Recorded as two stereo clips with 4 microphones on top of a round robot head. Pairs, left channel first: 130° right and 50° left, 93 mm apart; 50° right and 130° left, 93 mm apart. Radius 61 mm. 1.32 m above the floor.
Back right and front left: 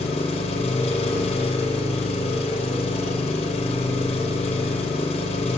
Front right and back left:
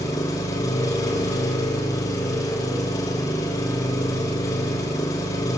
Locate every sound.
0.0 s an engine running: 110° right, 3 m